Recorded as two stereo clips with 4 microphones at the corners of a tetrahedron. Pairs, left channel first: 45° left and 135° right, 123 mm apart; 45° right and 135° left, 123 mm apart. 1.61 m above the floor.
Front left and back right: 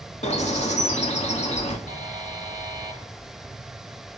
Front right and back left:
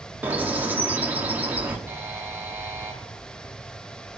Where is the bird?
60° left, 2.5 m.